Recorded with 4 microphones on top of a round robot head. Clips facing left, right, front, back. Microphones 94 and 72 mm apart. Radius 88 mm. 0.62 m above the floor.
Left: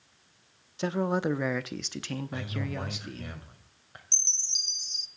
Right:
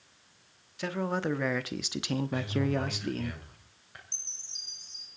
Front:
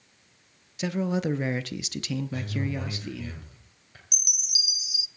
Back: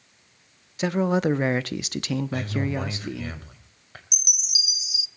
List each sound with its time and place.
0.8 s a man speaking: 145° left, 1.1 m; by 3.3 s 115° right, 1.2 m
2.3 s a man speaking: 155° left, 3.5 m
4.1 s a chime: 120° left, 0.5 m